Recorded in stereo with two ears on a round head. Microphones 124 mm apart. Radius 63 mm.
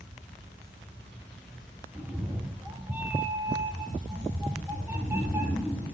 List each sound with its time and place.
1.9 s a cat meowing: 15° right (ahead or behind), 2.0 m